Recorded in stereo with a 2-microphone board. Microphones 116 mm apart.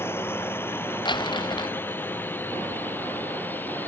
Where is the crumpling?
40° left (ahead or behind).